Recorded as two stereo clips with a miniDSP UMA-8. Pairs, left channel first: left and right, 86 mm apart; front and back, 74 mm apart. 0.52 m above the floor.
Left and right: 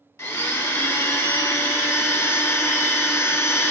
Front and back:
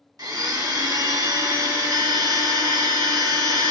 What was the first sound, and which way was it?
A blender, 150° left.